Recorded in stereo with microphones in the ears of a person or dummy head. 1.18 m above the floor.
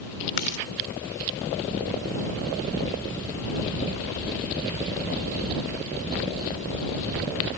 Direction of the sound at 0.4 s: 65° left (ahead or behind).